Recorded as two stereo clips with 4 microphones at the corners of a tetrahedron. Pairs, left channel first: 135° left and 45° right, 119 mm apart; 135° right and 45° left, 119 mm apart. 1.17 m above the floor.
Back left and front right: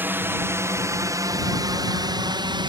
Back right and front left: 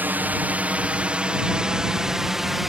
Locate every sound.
0.0 s a drone: 5° right; by 2.7 s 40° right